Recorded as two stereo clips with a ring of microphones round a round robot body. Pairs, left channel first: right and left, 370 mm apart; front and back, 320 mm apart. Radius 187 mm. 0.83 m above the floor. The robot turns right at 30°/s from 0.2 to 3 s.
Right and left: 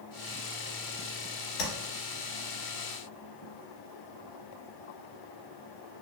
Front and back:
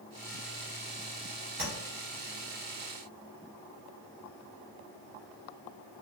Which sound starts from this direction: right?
Tapping, at 1.6 s.